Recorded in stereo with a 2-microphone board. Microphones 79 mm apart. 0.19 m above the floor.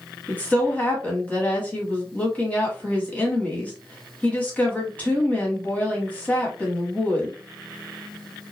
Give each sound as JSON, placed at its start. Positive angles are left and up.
{"t": 0.3, "sound": "a woman speaking", "side_deg": 20, "distance_m": 1.0}